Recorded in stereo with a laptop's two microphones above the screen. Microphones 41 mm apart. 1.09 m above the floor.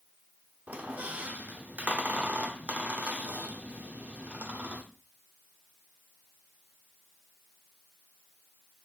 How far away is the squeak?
About 1.0 m.